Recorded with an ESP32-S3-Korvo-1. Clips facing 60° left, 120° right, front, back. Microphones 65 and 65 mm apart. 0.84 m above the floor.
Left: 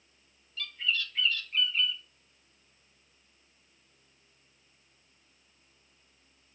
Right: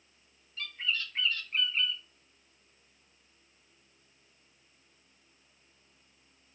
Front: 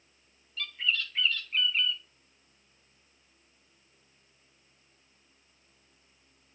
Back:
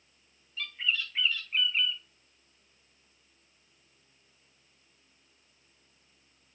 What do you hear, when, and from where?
0.6 s a bird: 105° right, 0.6 m